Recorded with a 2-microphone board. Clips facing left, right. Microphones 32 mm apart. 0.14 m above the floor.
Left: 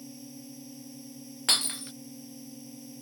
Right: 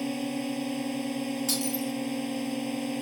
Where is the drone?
60° right (ahead or behind).